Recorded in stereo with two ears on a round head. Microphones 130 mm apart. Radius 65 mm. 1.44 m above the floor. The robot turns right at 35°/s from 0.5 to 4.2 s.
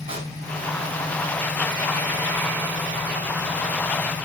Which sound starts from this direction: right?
A pop, at 0.1 s.